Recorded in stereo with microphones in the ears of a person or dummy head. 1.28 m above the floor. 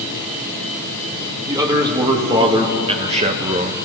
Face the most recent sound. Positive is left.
turn(degrees=-40)  # may be behind; listen again after turning